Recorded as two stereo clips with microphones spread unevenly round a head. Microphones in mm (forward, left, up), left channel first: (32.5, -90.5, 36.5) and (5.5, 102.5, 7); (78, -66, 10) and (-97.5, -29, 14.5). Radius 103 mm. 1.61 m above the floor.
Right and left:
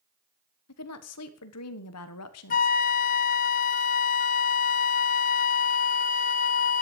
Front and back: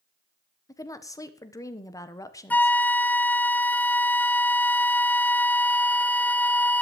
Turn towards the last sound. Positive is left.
turn(degrees=-90)